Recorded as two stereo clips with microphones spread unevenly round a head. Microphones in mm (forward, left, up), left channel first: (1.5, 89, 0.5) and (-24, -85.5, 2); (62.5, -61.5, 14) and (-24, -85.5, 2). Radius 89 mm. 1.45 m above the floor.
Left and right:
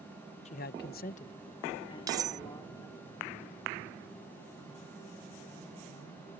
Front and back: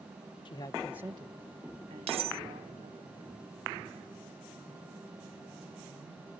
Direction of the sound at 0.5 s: 30° left.